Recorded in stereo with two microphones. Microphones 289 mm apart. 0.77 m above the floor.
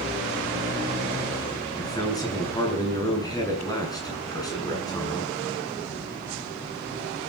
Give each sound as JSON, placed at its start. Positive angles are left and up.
{"t": 1.8, "sound": "a man speaking", "side_deg": 10, "distance_m": 8.0}